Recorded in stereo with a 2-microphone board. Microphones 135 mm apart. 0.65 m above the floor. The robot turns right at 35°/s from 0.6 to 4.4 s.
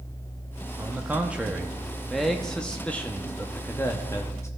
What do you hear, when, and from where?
0.8 s a man speaking: 15° right (ahead or behind), 0.7 m; by 4.5 s 20° left (ahead or behind), 0.7 m